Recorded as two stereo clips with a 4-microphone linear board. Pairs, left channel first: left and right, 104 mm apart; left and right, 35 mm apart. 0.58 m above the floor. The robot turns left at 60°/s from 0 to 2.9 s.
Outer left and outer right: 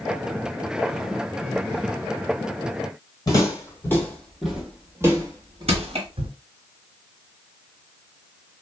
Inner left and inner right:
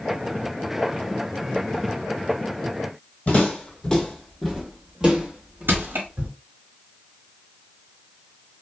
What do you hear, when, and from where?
3.3 s footsteps: 40° left (ahead or behind), 1.1 m; by 6.3 s 55° right (ahead or behind), 1.3 m
5.7 s crushing: 80° right, 1.0 m